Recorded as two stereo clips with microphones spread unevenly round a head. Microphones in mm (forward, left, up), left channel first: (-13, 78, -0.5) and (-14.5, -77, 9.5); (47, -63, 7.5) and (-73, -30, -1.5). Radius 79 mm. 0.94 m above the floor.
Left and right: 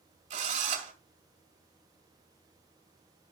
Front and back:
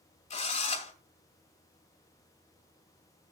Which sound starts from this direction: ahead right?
A drill, at 0.3 s.